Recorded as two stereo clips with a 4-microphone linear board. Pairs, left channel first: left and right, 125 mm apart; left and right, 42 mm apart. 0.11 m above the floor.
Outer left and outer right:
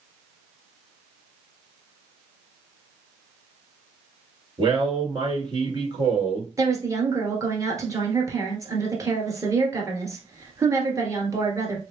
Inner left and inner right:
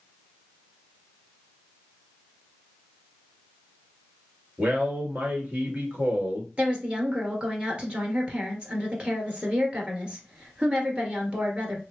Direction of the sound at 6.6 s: 25° right (ahead or behind).